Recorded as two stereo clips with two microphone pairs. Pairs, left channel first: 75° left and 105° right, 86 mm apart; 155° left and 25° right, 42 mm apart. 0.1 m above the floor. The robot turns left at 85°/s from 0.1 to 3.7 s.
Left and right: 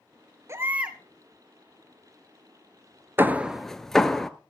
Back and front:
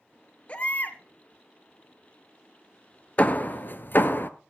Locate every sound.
0.5 s a baby crying: 145° right, 1.0 m; by 1.0 s 170° left, 1.0 m
3.2 s hammering: 155° right, 0.7 m; by 4.3 s 160° left, 0.7 m